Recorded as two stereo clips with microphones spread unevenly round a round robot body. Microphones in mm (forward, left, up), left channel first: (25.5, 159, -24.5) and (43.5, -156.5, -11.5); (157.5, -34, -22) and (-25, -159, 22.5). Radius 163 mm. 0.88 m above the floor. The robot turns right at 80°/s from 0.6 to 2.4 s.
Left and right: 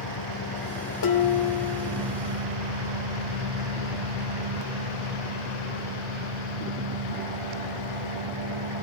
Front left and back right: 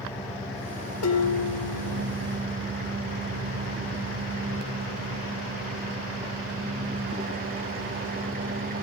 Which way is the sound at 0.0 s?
120° left.